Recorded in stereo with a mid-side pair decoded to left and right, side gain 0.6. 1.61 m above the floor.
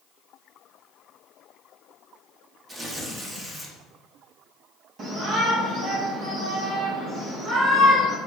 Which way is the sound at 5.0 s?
55° right.